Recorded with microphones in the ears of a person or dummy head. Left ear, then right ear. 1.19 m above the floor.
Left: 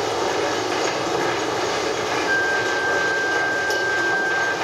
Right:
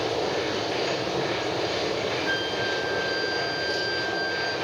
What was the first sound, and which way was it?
A machine running, 45° left (ahead or behind).